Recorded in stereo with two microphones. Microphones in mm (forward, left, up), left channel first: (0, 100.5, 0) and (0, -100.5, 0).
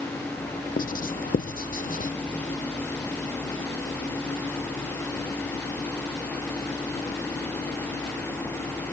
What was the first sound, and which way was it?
Writing, 45° left (ahead or behind).